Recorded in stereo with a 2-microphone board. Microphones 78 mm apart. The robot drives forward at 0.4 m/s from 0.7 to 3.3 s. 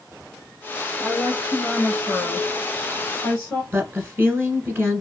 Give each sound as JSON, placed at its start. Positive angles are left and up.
{"t": 1.0, "sound": "a woman speaking", "side_deg": 25, "distance_m": 1.1}
{"t": 3.7, "sound": "a woman speaking", "side_deg": -25, "distance_m": 1.3}